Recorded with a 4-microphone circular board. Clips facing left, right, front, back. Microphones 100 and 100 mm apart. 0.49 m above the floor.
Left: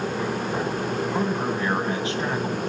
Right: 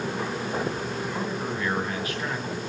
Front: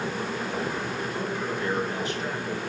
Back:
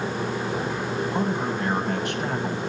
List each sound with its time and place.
1.1 s a man speaking: 155° left, 3 m